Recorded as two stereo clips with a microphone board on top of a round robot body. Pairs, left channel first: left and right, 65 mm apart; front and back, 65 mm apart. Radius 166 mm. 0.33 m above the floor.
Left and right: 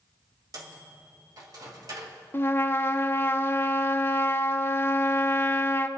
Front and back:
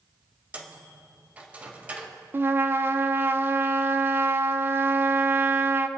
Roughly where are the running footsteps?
I don't hear running footsteps.